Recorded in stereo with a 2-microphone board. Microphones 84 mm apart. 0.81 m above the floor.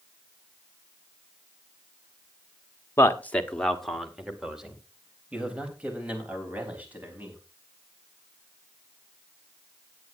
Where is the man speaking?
30° left (ahead or behind), 1.2 m; by 7.4 s 20° right (ahead or behind), 5.5 m.